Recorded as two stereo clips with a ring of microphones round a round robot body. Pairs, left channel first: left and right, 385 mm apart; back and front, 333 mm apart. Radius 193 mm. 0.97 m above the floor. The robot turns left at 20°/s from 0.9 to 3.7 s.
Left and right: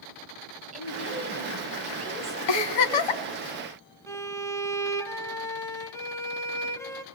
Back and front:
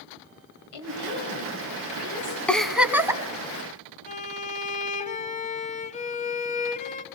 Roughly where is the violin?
Behind.